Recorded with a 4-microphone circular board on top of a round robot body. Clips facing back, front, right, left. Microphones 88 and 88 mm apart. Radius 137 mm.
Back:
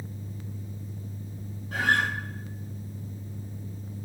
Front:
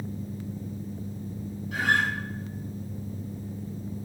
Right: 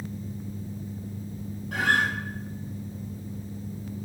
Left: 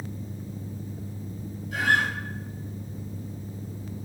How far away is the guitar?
About 5.5 m.